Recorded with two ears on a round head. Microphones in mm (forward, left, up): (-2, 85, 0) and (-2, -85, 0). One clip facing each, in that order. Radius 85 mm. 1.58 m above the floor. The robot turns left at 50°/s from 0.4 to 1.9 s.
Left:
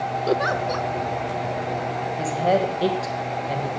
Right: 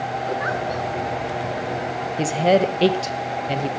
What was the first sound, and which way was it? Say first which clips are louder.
A giggle: left 5 dB; 50° left (ahead or behind).